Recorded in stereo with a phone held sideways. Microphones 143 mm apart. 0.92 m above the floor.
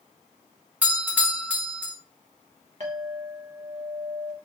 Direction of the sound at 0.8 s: 10° right (ahead or behind).